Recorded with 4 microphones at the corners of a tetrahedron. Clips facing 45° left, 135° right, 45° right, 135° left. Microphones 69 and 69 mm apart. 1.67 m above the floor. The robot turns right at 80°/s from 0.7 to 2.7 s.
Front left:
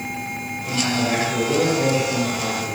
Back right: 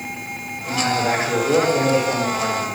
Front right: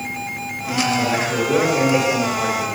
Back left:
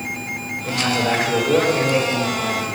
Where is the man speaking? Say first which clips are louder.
Back right 2 dB, front right 1 dB; 135° left, 1.9 m; by 2.7 s 65° right, 1.9 m.